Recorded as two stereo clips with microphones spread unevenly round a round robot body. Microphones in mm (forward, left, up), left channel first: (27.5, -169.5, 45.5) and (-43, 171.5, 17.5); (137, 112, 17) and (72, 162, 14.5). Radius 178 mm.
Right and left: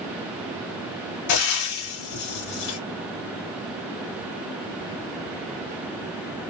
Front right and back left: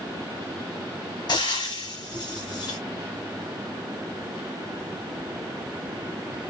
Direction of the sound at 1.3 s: 55° right.